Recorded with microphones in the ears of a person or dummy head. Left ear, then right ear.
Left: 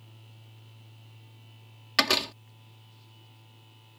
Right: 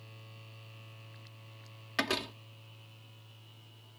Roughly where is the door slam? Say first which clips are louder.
Left 9 dB; left.